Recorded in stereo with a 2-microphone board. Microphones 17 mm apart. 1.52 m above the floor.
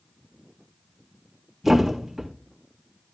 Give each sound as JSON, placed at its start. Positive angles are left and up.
{"t": 1.6, "sound": "a thud", "side_deg": -5, "distance_m": 3.5}